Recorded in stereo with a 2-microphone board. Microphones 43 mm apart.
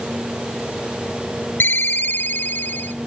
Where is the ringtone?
55° left (ahead or behind), 0.8 m.